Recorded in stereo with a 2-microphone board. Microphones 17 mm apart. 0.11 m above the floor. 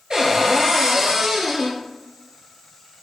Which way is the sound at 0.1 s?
45° right (ahead or behind).